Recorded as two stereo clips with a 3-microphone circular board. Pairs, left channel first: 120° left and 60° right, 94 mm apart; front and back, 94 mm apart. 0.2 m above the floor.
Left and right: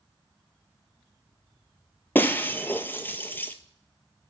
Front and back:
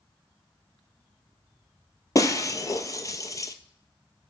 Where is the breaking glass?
50° left, 0.6 m.